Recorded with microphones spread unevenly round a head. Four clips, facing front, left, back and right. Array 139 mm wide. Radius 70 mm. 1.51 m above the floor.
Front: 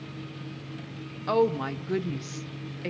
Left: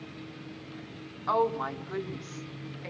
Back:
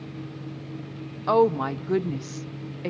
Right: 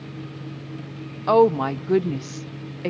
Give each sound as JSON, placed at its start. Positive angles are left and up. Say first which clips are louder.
{"t": 1.3, "sound": "a woman speaking", "louder": "right 10 dB, back 4 dB", "azimuth_deg": -90, "distance_m": 0.7}